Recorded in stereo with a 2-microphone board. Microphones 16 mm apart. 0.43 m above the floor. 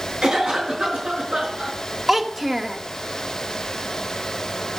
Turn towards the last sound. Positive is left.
turn(degrees=-15)  # may be behind; listen again after turning